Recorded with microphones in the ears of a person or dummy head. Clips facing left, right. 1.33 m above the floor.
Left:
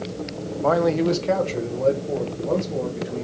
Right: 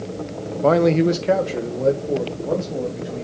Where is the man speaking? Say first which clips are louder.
Right 4 dB; 40° right (ahead or behind), 0.5 m; by 3.2 s 5° right (ahead or behind), 3 m.